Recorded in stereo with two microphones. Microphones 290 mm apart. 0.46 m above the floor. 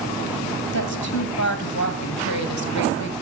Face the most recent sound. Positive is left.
turn(degrees=65)  # may be behind; listen again after turning